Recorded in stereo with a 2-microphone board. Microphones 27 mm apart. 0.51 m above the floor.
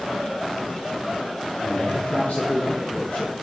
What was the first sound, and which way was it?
A man speaking, 75° left (ahead or behind).